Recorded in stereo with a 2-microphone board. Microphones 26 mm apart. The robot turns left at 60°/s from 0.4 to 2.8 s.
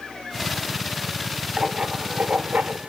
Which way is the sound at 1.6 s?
30° right.